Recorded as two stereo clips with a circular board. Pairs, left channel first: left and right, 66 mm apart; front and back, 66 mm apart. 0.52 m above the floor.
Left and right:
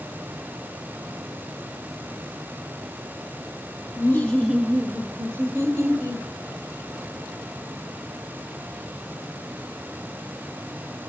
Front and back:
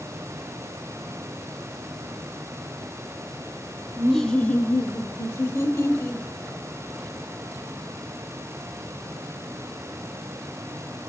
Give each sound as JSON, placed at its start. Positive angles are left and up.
{"t": 4.0, "sound": "laughter", "azimuth_deg": 105, "distance_m": 1.0}